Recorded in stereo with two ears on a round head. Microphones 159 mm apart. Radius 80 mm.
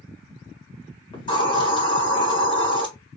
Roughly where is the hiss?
Left.